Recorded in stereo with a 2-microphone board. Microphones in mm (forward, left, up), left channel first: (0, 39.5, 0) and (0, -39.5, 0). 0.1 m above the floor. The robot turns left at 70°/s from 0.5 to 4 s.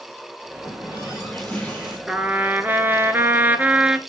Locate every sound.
0.6 s a running tap: 75° left, 5.5 m; by 2.0 s 20° right, 5.5 m
2.1 s a trumpet: 10° right (ahead or behind), 1.0 m